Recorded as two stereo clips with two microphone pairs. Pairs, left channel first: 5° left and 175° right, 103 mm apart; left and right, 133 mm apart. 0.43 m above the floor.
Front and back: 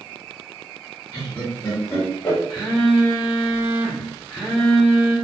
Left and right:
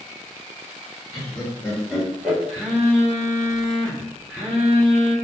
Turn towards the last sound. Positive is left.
turn(degrees=5)